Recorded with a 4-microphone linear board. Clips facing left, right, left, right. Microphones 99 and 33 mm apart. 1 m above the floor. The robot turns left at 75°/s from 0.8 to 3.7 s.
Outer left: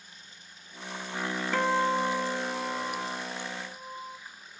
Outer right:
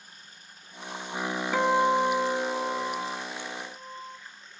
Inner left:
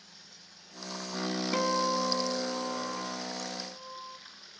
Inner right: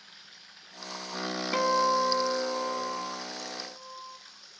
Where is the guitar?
10° right (ahead or behind), 0.6 m; by 4.2 s 5° left (ahead or behind), 0.6 m.